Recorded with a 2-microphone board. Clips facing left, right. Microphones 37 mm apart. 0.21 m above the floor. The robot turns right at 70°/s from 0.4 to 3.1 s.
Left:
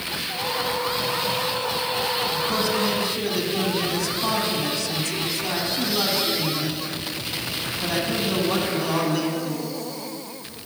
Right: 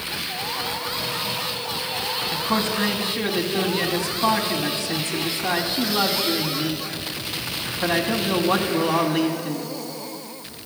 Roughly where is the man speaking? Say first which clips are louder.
Even; right.